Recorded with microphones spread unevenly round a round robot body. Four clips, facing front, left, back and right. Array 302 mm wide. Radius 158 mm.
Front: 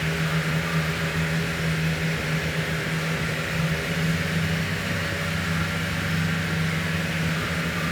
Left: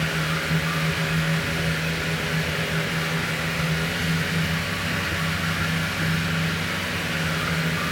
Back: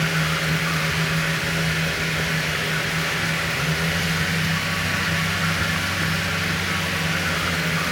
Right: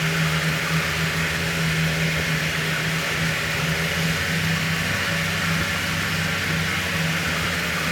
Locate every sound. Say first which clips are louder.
0.0 s running water: right 2 dB, back 3 dB; 170° right, 1.4 m